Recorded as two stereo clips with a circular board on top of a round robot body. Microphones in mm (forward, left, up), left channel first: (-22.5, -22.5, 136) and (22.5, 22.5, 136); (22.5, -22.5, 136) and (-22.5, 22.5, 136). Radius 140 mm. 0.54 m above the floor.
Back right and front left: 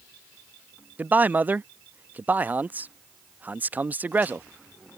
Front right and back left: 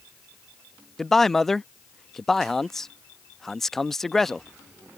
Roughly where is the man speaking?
Ahead left.